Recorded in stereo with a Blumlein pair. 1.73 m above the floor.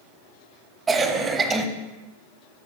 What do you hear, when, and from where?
0.9 s a cough: 15° right, 0.9 m